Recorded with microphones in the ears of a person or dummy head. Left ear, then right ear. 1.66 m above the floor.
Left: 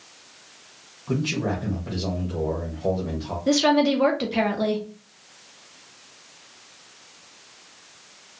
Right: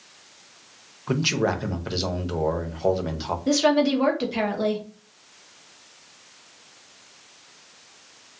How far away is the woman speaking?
About 0.7 m.